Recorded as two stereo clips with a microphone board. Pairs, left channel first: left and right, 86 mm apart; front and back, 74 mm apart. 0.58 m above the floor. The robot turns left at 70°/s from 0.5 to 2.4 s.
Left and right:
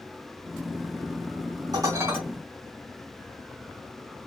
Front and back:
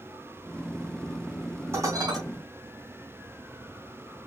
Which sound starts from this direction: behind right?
Dishes clattering, at 1.7 s.